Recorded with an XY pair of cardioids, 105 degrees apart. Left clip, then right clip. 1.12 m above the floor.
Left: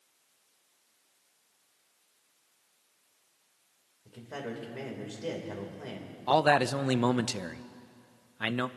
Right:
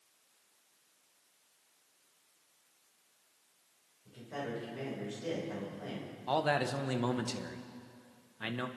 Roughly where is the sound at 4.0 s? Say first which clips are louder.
Left 1 dB; ahead left.